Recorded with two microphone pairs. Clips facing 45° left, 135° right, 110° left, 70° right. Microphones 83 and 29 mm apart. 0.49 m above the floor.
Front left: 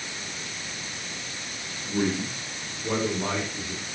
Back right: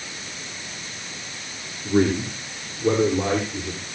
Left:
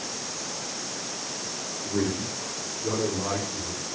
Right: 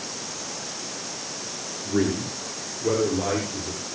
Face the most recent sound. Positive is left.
turn(degrees=-130)